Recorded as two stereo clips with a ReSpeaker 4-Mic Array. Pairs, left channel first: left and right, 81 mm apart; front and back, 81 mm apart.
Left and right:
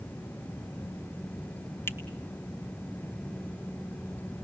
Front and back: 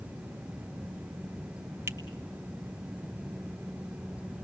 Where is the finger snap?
135° left, 1.9 m.